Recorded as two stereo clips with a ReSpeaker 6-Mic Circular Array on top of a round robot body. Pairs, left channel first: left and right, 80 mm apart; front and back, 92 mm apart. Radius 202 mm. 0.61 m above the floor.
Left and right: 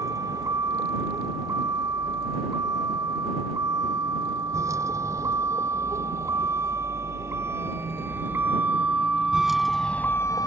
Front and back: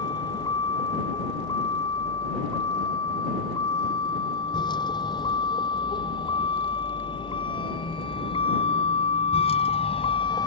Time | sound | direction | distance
0.0 | a vehicle | 45° right | ?